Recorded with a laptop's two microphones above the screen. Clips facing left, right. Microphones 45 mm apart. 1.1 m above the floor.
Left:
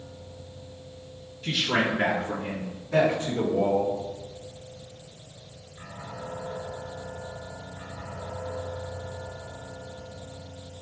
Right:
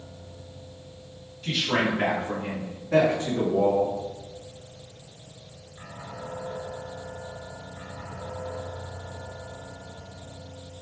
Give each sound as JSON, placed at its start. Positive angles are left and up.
{"t": 1.4, "sound": "a man speaking", "side_deg": 5, "distance_m": 1.4}